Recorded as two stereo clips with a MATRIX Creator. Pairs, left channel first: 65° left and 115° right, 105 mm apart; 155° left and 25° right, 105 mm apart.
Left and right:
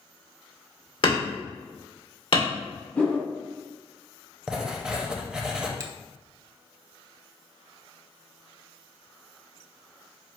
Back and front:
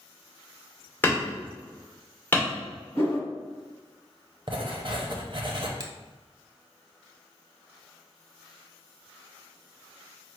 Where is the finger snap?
60° right, 0.8 m.